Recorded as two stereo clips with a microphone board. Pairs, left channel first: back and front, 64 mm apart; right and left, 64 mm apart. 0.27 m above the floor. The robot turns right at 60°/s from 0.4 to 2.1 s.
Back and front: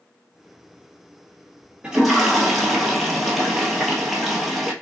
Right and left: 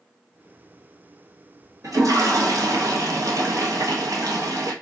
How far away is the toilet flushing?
About 1.1 m.